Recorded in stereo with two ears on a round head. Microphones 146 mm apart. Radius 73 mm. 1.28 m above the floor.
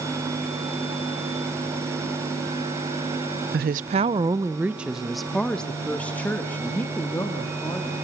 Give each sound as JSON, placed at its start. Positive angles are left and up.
{"t": 3.5, "sound": "a woman speaking", "side_deg": -65, "distance_m": 0.6}